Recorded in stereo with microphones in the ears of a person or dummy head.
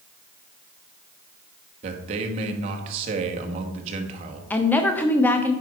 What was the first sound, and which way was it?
A man speaking, 40° right (ahead or behind).